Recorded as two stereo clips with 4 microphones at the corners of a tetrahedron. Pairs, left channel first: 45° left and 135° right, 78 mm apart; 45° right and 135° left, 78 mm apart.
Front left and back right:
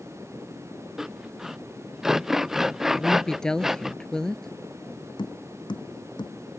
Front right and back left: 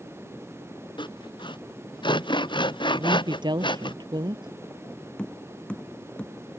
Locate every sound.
1.0 s sawing: 50° right
3.0 s a woman speaking: 130° left
5.2 s tapping: 30° left